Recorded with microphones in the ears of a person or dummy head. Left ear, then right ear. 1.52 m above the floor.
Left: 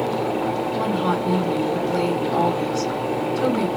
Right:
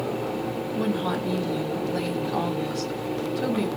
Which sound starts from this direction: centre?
A woman speaking, at 0.8 s.